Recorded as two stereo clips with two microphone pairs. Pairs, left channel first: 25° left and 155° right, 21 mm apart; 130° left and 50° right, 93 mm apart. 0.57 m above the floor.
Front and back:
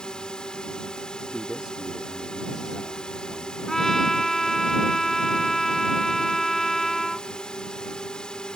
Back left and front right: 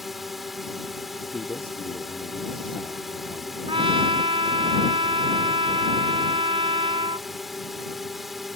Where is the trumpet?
40° right.